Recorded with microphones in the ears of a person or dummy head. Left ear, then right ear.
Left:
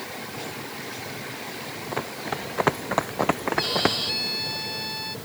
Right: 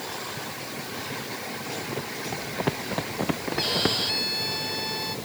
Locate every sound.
1.9 s running footsteps: 50° left (ahead or behind); by 4.0 s 35° left (ahead or behind)
3.6 s a violin: 5° left (ahead or behind)